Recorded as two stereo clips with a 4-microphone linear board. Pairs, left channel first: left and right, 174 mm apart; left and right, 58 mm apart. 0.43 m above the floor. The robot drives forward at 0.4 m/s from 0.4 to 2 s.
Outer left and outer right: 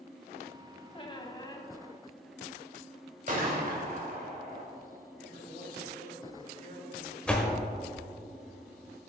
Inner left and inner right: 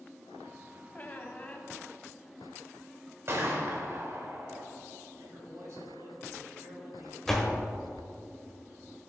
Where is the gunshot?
50° right (ahead or behind), 1.7 m.